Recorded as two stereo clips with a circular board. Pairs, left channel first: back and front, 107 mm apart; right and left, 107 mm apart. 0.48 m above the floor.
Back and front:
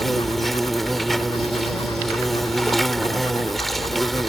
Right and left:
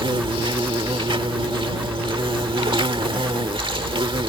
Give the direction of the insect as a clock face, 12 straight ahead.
9 o'clock.